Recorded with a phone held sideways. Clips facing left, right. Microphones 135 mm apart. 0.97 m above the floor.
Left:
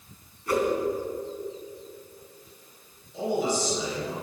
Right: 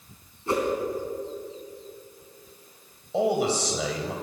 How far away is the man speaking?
About 4 m.